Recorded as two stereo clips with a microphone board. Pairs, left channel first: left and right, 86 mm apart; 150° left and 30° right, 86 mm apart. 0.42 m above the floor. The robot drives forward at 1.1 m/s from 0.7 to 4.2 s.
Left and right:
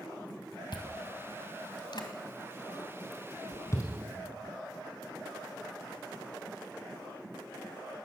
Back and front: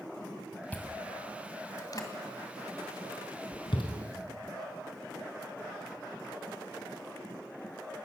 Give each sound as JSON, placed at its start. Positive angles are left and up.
{"t": 0.7, "sound": "chewing", "azimuth_deg": 80, "distance_m": 2.5}